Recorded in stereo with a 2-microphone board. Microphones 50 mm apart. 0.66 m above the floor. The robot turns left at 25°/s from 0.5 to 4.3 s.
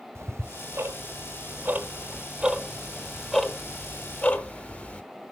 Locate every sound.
0.1 s ticking: 65° right (ahead or behind), 1.1 m; by 5.0 s 30° left (ahead or behind), 1.1 m